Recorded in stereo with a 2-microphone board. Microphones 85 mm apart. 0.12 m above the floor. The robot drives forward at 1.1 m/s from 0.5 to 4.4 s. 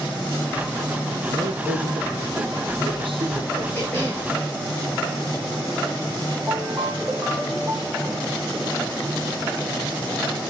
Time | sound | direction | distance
1.3 | a man speaking | 55° right (ahead or behind) | 4 m
3.7 | a cough | 20° left (ahead or behind) | 7.5 m
6.5 | a ringtone | 30° right (ahead or behind) | 3.5 m